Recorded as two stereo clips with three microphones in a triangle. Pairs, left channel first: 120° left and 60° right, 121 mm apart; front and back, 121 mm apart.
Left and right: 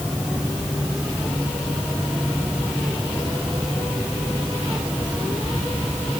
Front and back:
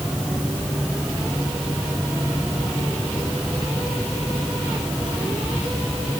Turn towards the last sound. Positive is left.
No sound to turn to.